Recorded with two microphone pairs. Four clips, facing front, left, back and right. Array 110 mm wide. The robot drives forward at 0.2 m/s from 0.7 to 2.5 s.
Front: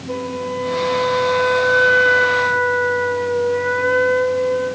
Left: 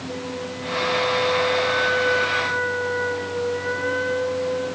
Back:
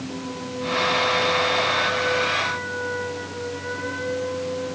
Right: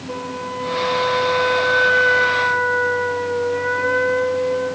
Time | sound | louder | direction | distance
0.1 | a flute | right 5 dB, front 8 dB | 55° right | 2.5 m